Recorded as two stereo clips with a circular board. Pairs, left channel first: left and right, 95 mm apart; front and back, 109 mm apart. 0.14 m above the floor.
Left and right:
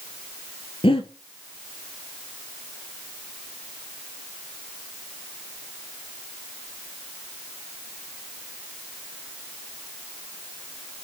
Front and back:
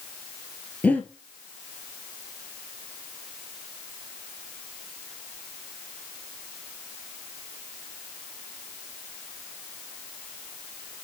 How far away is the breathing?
About 1.1 m.